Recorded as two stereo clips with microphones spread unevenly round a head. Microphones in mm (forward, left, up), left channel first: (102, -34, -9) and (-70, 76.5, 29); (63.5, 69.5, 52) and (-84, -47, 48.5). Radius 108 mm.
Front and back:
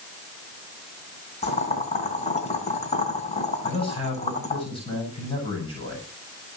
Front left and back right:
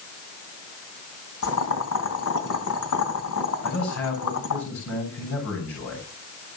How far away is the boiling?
About 3.5 m.